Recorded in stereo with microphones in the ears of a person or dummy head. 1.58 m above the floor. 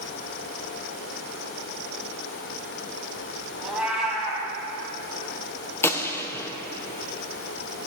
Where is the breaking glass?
No breaking glass in this recording.